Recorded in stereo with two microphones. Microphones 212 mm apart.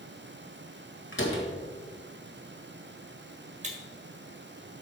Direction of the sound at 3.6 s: 35° right (ahead or behind).